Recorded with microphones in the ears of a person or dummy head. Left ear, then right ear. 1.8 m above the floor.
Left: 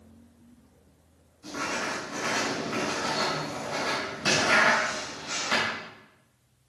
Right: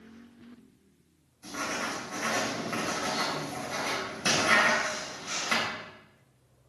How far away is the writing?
About 3.5 m.